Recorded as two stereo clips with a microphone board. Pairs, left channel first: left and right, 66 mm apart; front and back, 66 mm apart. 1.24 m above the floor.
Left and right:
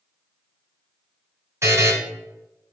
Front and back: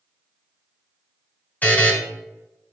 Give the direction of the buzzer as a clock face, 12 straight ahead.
2 o'clock.